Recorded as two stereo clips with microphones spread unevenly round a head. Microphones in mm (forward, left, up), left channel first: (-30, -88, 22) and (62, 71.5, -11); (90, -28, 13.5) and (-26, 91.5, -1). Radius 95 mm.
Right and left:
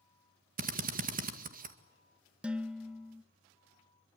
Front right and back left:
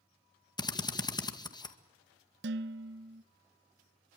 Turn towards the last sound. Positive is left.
turn(degrees=150)